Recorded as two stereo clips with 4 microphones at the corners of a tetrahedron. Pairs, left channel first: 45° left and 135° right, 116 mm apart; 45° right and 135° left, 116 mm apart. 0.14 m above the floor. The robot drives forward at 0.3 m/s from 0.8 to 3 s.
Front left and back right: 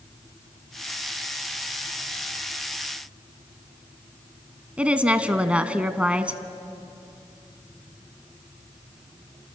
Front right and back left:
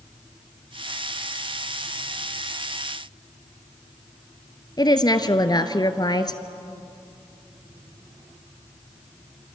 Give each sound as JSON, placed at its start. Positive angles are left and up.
{"t": 4.8, "sound": "a woman speaking", "azimuth_deg": -60, "distance_m": 1.3}